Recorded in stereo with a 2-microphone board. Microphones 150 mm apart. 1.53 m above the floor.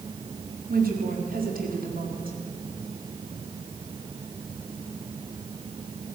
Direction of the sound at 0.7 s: 75° right (ahead or behind).